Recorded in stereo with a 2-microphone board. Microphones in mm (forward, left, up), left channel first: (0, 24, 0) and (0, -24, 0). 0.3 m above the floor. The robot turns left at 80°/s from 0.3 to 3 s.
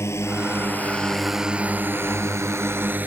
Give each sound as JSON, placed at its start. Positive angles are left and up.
{"t": 0.0, "sound": "a drone", "side_deg": 75}